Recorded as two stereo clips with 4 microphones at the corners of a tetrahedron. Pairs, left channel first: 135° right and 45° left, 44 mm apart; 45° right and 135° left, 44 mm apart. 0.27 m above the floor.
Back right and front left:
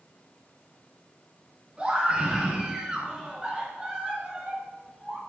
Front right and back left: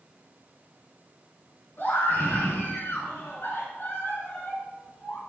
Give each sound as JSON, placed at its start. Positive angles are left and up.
{"t": 1.8, "sound": "a scream", "azimuth_deg": -15, "distance_m": 3.0}